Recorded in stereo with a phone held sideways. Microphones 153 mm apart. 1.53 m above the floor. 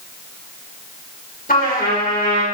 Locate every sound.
1.5 s a trumpet: 70° left (ahead or behind), 3 m